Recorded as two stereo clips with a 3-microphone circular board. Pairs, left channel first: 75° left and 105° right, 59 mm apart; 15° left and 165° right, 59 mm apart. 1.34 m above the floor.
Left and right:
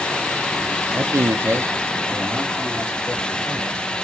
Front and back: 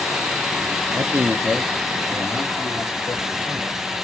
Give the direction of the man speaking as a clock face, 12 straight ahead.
5 o'clock.